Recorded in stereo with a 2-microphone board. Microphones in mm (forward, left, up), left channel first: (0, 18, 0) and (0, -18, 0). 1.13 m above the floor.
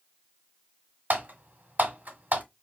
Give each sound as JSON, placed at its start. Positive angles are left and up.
{"t": 1.1, "sound": "typing on a keyboard", "side_deg": -50, "distance_m": 1.3}